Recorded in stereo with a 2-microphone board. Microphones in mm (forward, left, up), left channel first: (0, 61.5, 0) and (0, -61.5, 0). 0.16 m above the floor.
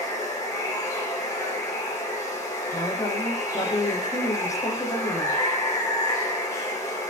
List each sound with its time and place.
0.0 s running water: 25° left (ahead or behind), 7.5 m
2.7 s a woman speaking: 25° left (ahead or behind), 6.5 m